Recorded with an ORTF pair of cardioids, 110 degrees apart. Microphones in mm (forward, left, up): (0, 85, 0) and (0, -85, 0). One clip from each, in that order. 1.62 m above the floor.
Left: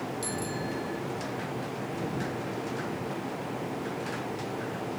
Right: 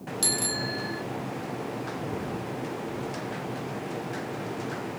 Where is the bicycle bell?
65° right.